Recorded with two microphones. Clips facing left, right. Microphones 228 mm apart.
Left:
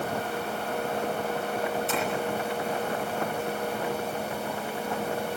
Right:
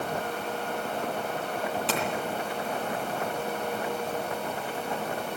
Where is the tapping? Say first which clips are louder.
Left 1 dB; 80° right, 9 m.